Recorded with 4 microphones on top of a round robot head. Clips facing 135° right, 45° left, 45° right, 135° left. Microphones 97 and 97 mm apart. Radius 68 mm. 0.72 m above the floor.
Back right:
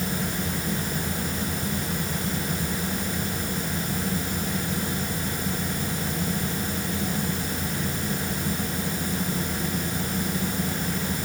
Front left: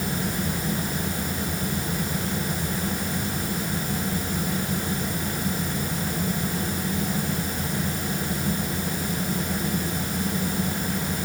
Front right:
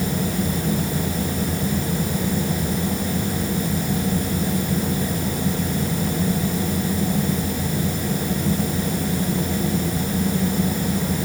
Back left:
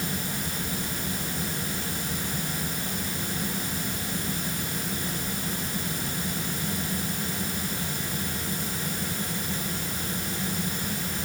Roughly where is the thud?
No thud in this recording.